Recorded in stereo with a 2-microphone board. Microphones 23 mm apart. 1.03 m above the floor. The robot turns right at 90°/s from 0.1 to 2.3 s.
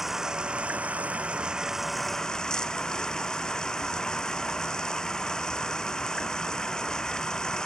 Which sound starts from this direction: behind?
Running water, at 0.0 s.